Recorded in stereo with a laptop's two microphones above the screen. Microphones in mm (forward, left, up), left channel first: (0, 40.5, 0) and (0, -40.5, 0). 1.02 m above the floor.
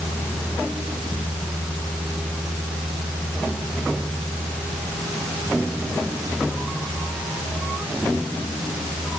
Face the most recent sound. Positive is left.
No sound to turn to.